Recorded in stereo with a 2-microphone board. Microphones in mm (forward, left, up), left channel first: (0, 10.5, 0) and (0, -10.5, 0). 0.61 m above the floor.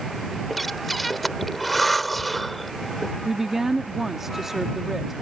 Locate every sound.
0.5 s breathing: centre (ahead or behind)
3.2 s a woman speaking: 20° right (ahead or behind)